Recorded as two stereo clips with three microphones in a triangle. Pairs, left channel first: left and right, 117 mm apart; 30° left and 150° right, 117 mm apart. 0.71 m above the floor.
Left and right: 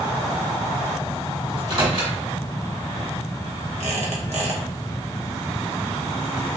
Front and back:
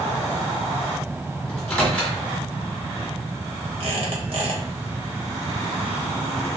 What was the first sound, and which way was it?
A microwave, 55° right.